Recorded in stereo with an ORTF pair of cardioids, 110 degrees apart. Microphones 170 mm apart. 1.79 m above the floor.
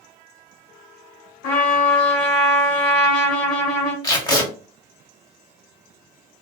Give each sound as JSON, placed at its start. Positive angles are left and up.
{"t": 1.4, "sound": "a trumpet", "azimuth_deg": 65, "distance_m": 1.1}
{"t": 4.0, "sound": "tape being pulled", "azimuth_deg": 25, "distance_m": 1.1}